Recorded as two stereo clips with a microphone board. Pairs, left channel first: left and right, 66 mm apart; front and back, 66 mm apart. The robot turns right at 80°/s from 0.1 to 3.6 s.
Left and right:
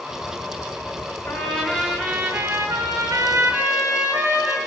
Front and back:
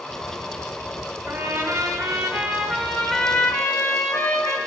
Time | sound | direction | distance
1.3 | a trumpet | 125° left | 1.7 m